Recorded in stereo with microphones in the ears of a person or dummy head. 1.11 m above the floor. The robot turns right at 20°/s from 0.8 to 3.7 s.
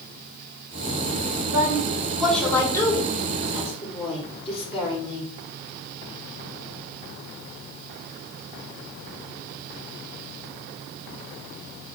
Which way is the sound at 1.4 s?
10° right.